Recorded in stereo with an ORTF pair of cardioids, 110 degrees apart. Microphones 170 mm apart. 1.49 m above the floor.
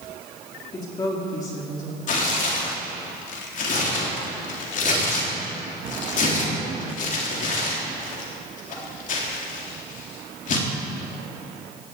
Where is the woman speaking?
25° left, 3.5 m.